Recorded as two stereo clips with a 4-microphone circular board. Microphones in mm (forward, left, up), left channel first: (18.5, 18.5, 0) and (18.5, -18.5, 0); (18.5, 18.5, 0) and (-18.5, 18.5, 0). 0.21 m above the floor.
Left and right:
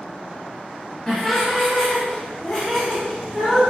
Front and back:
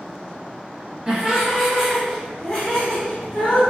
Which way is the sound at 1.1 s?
155° left.